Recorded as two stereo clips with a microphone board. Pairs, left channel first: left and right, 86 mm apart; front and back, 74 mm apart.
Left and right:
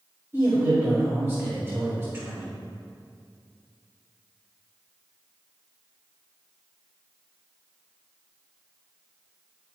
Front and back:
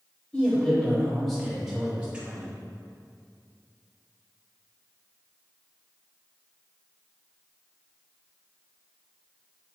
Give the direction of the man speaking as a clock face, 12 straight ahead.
2 o'clock.